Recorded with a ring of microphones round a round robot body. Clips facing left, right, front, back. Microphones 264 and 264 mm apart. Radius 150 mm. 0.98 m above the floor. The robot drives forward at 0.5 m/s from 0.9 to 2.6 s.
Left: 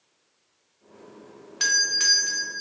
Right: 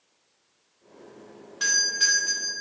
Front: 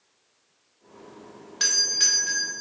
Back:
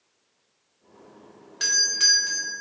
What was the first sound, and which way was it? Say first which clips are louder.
A doorbell: left 1 dB, even; 85° left.